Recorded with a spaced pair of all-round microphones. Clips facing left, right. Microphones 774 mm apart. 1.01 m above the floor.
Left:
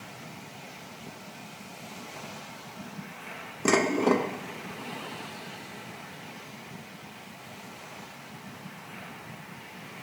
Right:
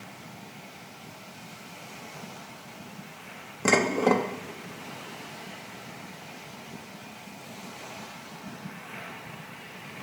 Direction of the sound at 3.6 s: 25° right (ahead or behind).